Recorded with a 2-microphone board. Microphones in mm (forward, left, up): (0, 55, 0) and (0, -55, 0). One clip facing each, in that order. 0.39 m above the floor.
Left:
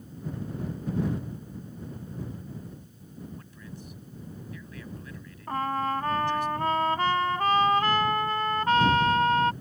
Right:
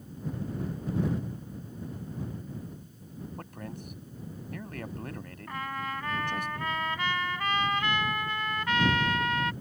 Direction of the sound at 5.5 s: 40° left (ahead or behind).